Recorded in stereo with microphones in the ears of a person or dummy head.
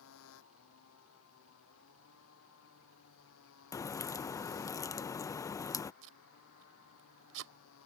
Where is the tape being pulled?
70° right (ahead or behind).